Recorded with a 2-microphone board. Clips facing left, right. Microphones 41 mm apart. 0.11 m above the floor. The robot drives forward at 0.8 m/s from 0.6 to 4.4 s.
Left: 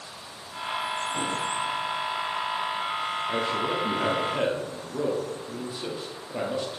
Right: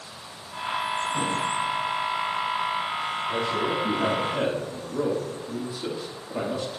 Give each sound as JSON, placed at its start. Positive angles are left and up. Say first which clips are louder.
{"t": 3.3, "sound": "a man speaking", "louder": "right 1 dB", "side_deg": 25, "distance_m": 2.0}